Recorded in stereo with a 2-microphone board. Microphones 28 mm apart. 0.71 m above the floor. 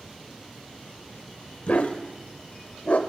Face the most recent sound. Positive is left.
turn(degrees=60)  # may be behind; listen again after turning